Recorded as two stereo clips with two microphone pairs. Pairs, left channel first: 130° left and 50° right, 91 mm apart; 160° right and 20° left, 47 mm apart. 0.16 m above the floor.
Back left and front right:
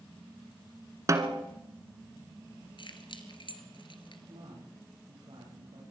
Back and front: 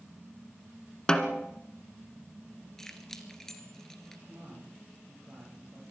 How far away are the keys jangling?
About 1.9 m.